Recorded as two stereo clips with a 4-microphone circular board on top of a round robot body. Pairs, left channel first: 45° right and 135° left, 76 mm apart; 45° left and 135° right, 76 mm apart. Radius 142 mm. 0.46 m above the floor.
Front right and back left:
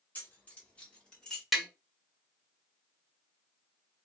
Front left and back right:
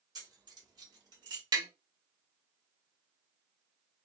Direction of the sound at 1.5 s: 135° right.